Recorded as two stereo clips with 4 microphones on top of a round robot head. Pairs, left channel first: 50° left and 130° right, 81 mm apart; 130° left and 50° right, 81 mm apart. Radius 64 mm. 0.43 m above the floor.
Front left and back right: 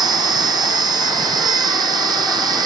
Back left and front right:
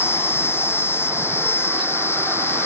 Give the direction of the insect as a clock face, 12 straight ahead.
6 o'clock.